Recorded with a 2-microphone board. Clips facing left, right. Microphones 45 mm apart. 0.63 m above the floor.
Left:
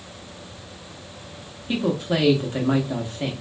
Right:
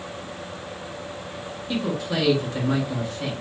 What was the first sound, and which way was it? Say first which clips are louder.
A man speaking: left 3 dB; 35° left (ahead or behind).